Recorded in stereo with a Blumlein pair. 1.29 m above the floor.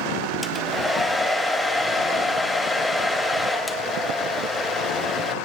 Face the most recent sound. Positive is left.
turn(degrees=5)